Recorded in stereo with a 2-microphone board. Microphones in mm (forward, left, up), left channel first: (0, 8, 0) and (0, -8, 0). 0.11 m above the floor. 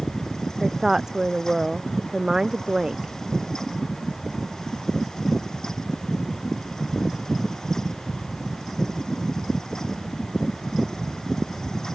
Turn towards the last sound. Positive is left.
turn(degrees=-40)  # may be behind; listen again after turning